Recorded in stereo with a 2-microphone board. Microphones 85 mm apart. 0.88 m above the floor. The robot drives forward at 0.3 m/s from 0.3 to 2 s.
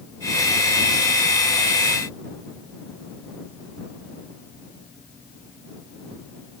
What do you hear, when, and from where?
Only background noise.